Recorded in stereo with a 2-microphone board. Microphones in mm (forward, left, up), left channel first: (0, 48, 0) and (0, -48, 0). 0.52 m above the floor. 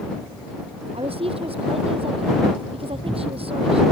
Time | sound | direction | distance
0.9 | a woman speaking | 80° right | ?